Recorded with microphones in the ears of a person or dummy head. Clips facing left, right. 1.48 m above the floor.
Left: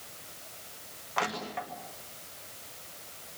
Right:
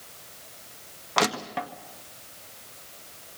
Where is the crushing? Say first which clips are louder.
Right 7 dB; 70° right (ahead or behind), 1.9 m.